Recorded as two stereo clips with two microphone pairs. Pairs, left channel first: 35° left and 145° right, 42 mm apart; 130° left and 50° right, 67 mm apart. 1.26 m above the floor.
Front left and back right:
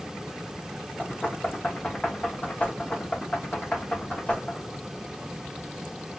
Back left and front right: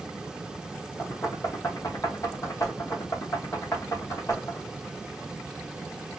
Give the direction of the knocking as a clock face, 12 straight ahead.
9 o'clock.